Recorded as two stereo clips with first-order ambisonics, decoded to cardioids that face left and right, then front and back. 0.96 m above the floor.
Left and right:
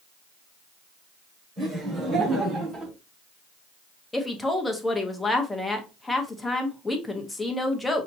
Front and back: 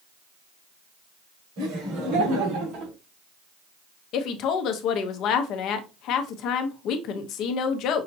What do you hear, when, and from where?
1.6 s laughter: 165° right, 3 m; by 2.9 s 150° right, 2.5 m
4.1 s a woman speaking: 10° left, 0.8 m